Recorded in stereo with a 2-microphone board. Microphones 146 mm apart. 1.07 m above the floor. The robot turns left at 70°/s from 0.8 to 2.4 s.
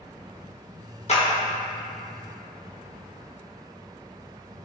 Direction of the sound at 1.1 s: 50° left (ahead or behind).